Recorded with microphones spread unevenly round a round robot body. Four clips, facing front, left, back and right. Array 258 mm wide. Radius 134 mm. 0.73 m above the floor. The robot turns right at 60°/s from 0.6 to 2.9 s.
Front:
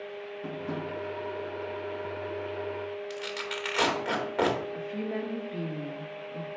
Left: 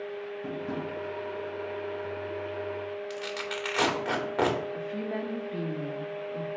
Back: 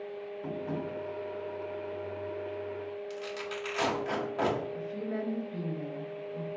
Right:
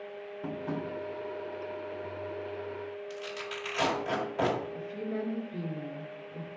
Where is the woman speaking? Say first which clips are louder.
Left 2 dB, front 2 dB; 60° left, 1.5 m.